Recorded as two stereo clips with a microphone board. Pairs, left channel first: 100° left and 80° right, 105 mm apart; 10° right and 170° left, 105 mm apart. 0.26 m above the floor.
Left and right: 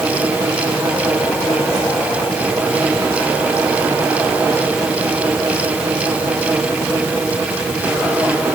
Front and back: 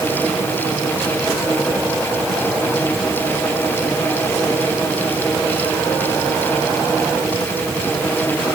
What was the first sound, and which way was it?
Only background noise.